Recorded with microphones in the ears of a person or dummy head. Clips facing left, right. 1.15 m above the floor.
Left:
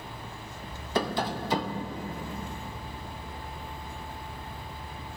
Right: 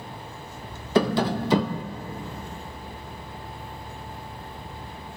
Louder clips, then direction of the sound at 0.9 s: Right 7 dB; 65° right (ahead or behind).